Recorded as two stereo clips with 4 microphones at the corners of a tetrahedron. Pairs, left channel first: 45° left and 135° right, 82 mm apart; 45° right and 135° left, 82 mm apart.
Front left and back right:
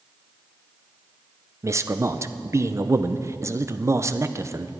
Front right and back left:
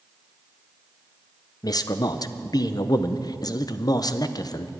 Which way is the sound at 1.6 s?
80° right.